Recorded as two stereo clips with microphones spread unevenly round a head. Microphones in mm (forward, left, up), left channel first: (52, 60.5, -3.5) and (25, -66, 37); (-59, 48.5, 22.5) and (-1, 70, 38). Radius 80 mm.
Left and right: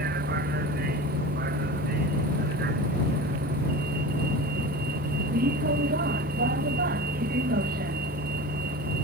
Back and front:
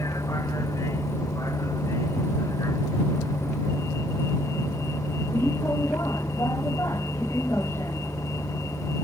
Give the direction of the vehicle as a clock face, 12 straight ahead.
3 o'clock.